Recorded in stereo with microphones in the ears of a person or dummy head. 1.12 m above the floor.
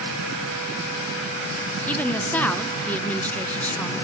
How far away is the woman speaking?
About 0.7 m.